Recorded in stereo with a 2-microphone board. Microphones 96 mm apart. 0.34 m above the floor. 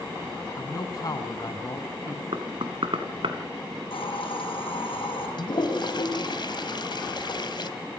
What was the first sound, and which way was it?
A man speaking, 45° left (ahead or behind).